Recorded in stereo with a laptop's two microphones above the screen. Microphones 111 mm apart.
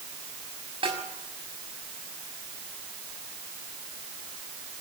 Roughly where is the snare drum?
Right.